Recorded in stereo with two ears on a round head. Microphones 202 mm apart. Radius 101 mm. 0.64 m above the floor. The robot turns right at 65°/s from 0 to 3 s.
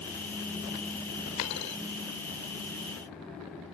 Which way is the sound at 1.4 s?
75° left (ahead or behind).